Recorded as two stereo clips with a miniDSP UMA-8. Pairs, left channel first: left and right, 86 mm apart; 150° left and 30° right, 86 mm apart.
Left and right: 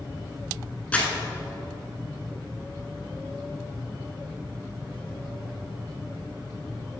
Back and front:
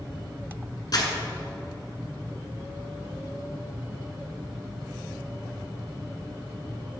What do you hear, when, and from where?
0.9 s crumpling: 160° left, 1.3 m